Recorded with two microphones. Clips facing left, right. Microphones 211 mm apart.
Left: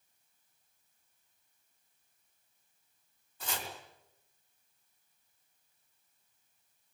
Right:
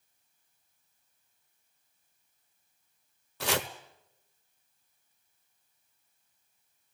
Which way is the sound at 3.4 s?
80° right.